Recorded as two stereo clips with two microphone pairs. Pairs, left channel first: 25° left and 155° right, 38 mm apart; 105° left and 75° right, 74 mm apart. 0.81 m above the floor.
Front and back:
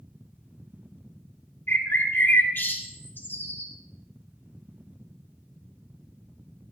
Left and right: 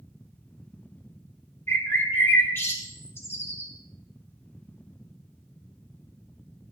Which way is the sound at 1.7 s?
50° left.